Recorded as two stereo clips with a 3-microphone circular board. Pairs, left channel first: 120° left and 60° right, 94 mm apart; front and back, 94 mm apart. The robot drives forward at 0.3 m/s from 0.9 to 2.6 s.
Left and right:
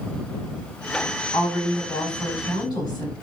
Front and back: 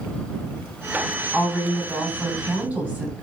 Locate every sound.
1.3 s a woman speaking: 105° left, 2.5 m; by 3.1 s 115° left, 2.5 m